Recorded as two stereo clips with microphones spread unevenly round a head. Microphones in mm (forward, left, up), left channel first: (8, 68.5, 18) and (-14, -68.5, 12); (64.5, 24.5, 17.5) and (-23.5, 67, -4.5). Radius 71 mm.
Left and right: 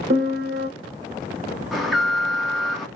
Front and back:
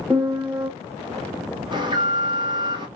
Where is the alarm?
175° left, 1.0 m.